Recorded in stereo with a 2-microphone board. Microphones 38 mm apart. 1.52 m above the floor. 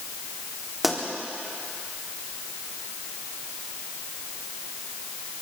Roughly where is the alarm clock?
No alarm clock in this recording.